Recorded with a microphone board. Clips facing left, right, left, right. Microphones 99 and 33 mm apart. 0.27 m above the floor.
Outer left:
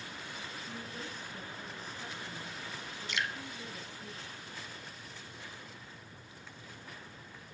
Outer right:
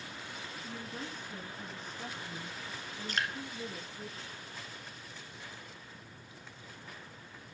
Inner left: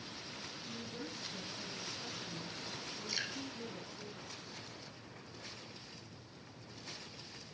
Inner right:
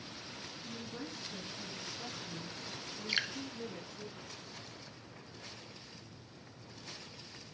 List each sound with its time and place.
0.6 s a woman speaking: 40° right (ahead or behind), 2 m; by 4.1 s 60° right (ahead or behind), 4 m
3.1 s dripping: 40° right (ahead or behind), 0.9 m